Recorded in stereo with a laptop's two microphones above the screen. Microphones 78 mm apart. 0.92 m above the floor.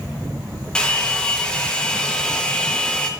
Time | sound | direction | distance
0.8 | a hair dryer | 10° left (ahead or behind) | 1.2 m